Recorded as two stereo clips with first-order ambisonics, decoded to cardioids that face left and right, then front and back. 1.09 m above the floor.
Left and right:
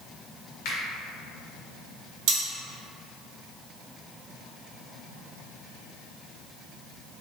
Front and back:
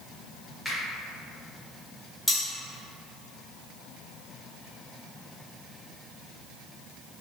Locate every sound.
0.7 s a finger snap: 90° left, 1.2 m
2.3 s cutlery clinking: 85° right, 1.1 m